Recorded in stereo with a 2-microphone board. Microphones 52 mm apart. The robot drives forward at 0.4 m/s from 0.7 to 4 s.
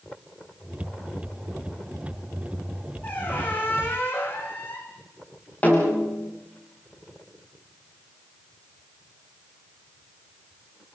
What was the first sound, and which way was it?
A squeak, 40° left (ahead or behind).